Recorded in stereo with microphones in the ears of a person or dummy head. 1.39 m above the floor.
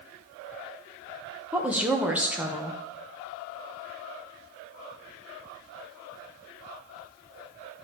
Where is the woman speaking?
10° right (ahead or behind), 1.0 m.